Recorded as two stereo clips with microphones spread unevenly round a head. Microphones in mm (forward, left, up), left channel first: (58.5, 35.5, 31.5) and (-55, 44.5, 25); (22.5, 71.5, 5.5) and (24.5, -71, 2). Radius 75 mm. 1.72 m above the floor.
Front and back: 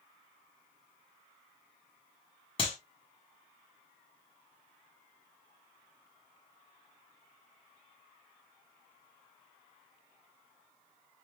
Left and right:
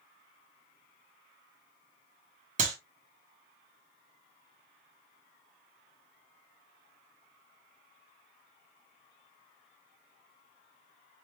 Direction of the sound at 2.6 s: 55° right.